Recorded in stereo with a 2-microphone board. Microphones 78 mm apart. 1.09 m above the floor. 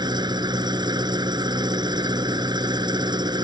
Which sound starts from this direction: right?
An engine running, at 0.0 s.